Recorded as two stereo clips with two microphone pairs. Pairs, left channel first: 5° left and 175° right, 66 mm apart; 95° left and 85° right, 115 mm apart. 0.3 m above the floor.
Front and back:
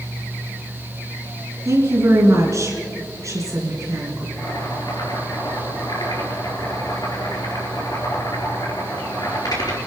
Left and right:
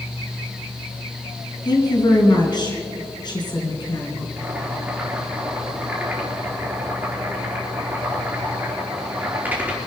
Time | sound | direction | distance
1.6 | a woman speaking | 145° left | 3.5 m
4.4 | boiling | 10° right | 5 m